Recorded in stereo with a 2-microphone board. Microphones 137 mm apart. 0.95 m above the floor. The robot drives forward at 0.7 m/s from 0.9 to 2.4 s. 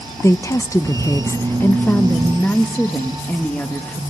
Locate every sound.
0.2 s a woman speaking: 20° left (ahead or behind), 0.7 m; by 4.0 s 10° left (ahead or behind), 1.4 m